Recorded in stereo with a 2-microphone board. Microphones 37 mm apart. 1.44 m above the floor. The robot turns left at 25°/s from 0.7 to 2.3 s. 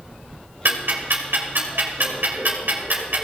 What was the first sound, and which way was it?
Ticking, 65° right (ahead or behind).